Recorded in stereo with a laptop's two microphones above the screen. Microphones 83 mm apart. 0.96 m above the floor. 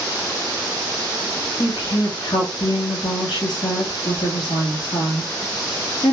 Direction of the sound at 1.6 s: 65° left (ahead or behind).